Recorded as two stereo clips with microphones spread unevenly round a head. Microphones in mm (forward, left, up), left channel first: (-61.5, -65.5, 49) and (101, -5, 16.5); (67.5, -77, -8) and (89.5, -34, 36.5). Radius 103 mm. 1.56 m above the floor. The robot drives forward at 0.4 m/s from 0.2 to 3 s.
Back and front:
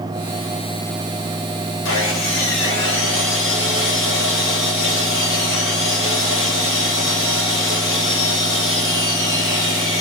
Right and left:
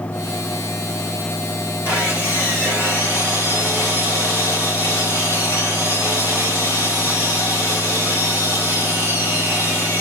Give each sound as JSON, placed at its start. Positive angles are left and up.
{"t": 1.9, "sound": "sawing", "azimuth_deg": -155, "distance_m": 2.5}